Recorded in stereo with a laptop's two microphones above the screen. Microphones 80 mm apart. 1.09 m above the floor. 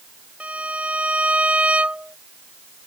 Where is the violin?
15° right (ahead or behind).